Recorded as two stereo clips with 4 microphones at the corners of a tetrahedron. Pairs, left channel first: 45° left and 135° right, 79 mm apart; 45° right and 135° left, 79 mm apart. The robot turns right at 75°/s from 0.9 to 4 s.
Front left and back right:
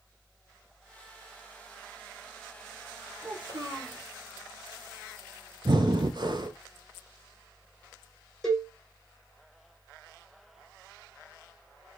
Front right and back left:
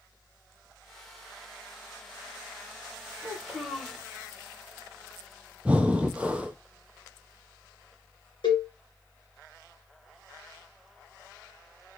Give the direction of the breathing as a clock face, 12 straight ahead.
5 o'clock.